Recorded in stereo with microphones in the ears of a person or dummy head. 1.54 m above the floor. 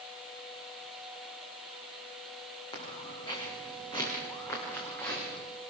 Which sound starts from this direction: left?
Footsteps, at 2.7 s.